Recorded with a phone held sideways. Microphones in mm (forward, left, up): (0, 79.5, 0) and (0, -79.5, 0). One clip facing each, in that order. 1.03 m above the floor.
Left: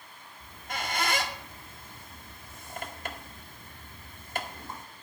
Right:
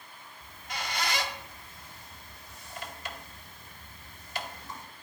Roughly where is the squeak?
Left.